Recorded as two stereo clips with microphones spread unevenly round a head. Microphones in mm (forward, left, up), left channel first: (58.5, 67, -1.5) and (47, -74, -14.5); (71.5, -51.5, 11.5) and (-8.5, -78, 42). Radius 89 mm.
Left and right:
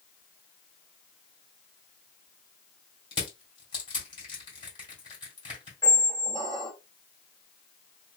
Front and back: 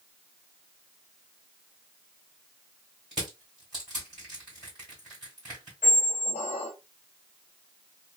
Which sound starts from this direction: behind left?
Crushing, at 3.1 s.